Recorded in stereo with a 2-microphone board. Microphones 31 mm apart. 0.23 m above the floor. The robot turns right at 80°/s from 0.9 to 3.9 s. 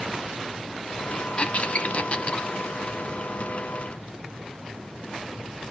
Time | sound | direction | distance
1.4 | a squeak | 40° left (ahead or behind) | 0.6 m